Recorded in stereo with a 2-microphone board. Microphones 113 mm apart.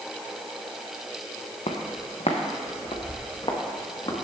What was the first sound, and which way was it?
Footsteps, 65° left (ahead or behind).